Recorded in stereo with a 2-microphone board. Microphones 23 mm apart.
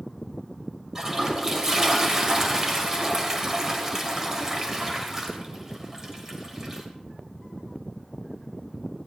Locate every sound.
0.9 s a toilet flushing: 25° right (ahead or behind), 2.5 m